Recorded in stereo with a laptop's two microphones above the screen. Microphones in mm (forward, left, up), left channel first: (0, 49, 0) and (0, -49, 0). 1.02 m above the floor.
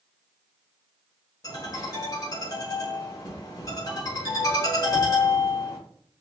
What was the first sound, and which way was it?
A ringtone, 35° left (ahead or behind).